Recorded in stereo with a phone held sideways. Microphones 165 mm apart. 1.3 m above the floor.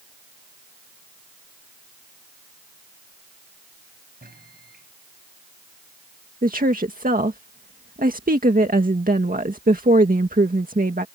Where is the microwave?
75° right (ahead or behind).